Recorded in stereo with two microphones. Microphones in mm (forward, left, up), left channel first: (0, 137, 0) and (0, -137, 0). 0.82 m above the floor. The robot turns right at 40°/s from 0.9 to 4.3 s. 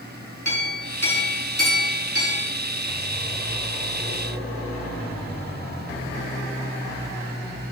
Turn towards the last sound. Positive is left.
turn(degrees=-135)